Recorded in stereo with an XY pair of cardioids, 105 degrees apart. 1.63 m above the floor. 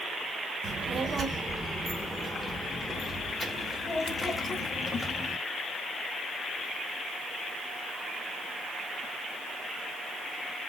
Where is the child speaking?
40° right, 1.5 m; by 5.4 s 30° left, 3 m.